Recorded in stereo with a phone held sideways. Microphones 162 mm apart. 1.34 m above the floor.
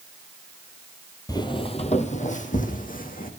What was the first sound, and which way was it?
Footsteps, 25° left (ahead or behind).